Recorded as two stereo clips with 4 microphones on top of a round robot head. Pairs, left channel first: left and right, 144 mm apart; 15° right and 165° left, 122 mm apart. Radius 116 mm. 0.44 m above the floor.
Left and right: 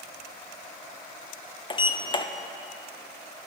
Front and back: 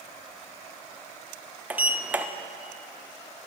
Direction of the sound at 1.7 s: 100° left.